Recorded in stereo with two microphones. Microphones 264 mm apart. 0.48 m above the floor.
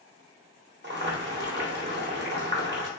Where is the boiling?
40° right (ahead or behind), 0.7 m.